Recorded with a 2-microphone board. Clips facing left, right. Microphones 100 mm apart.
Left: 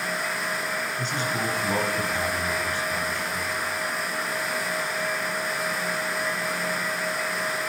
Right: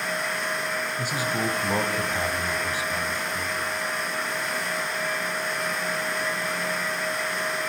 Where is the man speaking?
10° right (ahead or behind), 1.2 m.